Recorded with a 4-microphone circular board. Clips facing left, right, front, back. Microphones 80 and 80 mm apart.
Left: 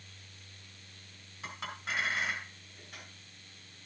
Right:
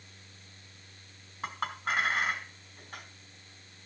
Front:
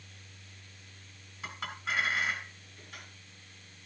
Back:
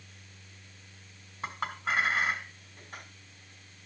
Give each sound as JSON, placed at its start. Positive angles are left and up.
{"t": 1.4, "sound": "a clink", "azimuth_deg": -140, "distance_m": 3.0}